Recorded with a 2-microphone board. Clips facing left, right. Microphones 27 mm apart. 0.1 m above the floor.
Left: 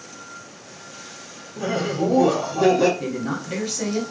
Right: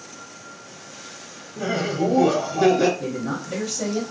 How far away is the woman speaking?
About 1.4 m.